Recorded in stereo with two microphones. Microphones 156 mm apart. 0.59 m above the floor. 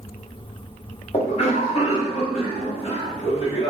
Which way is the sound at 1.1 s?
40° left (ahead or behind).